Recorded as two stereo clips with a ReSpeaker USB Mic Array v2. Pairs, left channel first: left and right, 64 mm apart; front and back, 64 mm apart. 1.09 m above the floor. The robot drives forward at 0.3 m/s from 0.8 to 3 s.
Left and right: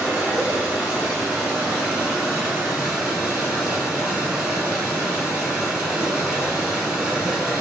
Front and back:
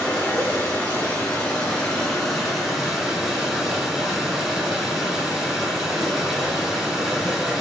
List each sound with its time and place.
0.0 s running water: 30° right, 1.1 m; by 7.6 s 110° right, 1.0 m